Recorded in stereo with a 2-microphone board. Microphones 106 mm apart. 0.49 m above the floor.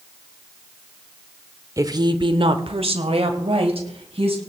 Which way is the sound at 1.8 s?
30° right (ahead or behind).